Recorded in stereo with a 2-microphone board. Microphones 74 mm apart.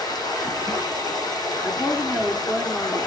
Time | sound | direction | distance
0.0 | running water | 65° left (ahead or behind) | 4 m
1.6 | a woman speaking | 15° left (ahead or behind) | 1.8 m